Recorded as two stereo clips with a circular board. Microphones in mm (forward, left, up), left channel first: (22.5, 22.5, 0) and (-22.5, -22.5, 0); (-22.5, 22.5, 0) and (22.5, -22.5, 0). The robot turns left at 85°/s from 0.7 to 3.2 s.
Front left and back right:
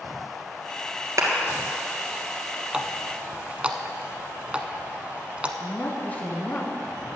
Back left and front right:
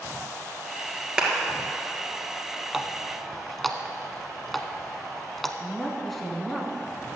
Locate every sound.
1.2 s a clap: 115° right, 2.5 m; by 1.3 s 130° right, 2.5 m
2.7 s a running tap: 105° right, 0.8 m; by 5.5 s 145° right, 0.8 m
5.6 s a woman speaking: 50° left, 1.7 m